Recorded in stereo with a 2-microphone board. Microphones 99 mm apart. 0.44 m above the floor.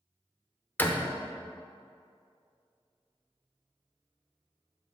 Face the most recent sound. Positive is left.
turn(degrees=20)  # may be behind; listen again after turning